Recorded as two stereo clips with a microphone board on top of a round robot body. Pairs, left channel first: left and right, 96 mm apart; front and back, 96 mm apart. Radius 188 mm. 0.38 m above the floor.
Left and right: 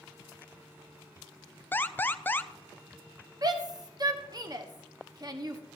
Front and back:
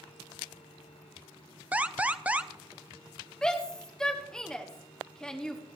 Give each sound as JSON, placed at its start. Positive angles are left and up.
{"t": 1.7, "sound": "an alarm", "azimuth_deg": 125, "distance_m": 0.8}
{"t": 3.4, "sound": "a shout", "azimuth_deg": -80, "distance_m": 1.7}